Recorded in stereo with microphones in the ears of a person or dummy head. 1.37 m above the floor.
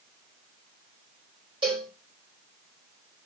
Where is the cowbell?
30° right (ahead or behind), 4.5 m.